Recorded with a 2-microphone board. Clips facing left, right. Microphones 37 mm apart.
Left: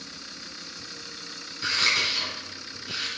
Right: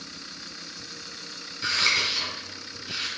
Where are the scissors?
10° left (ahead or behind), 3.5 m.